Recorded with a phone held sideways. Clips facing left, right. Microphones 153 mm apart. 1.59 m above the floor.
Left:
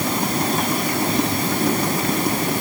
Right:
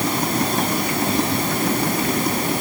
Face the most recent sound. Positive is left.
No sound to turn to.